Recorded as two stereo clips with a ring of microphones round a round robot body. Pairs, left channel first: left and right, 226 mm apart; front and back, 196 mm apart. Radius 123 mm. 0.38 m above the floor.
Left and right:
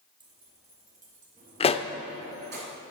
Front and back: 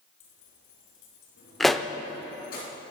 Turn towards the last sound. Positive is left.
turn(degrees=90)